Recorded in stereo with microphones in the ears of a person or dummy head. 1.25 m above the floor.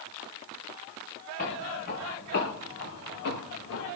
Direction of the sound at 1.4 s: 55° left (ahead or behind).